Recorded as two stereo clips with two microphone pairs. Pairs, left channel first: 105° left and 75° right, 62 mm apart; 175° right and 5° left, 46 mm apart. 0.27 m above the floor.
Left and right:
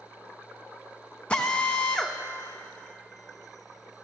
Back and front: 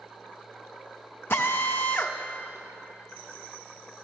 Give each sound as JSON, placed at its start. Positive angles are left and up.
{"t": 1.3, "sound": "a drill", "azimuth_deg": 170, "distance_m": 0.7}